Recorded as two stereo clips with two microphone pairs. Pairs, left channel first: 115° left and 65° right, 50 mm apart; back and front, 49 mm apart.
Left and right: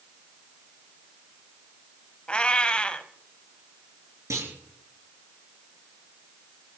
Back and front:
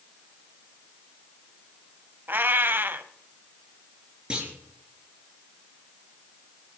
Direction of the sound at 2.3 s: 45° left.